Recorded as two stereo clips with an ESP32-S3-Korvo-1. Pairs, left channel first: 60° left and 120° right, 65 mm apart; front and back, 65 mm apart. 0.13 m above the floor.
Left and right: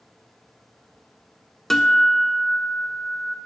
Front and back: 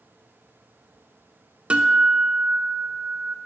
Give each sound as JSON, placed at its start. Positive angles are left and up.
{"t": 1.7, "sound": "a guitar", "azimuth_deg": 140, "distance_m": 0.6}